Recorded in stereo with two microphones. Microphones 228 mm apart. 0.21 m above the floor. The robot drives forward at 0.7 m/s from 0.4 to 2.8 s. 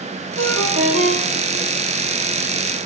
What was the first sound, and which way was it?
A ringtone, 65° right (ahead or behind).